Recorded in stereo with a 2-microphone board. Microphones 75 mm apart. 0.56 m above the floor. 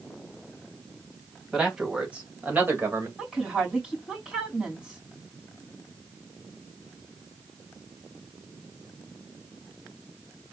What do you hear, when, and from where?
1.5 s a man speaking: 10° right (ahead or behind), 2.5 m; by 3.1 s 35° right (ahead or behind), 1.9 m
3.2 s a woman speaking: 5° right (ahead or behind), 3.5 m